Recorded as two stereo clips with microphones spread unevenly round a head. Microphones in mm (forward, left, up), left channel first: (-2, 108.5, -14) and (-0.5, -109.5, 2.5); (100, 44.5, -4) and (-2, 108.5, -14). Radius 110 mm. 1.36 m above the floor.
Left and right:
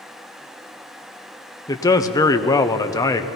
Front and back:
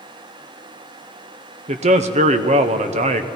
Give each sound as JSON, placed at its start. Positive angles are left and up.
{"t": 1.7, "sound": "a man speaking", "azimuth_deg": 160, "distance_m": 0.7}